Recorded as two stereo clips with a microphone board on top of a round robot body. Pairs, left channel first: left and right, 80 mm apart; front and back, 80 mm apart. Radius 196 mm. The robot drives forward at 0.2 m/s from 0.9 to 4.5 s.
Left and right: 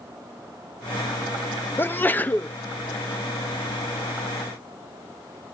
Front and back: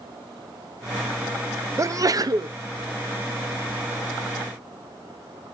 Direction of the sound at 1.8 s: 145° left.